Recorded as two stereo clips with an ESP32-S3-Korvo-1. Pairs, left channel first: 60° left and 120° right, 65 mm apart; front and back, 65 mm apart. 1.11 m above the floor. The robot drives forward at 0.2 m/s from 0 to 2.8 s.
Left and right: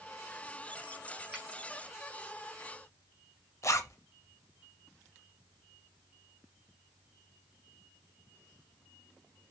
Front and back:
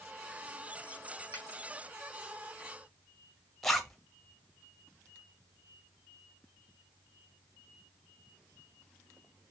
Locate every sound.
1.3 s a finger snap: 155° left, 1.2 m; by 1.4 s 160° left, 1.2 m
3.6 s a zipper: 80° left, 0.5 m